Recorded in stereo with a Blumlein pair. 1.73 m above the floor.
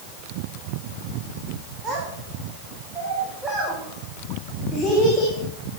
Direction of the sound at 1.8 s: 20° right.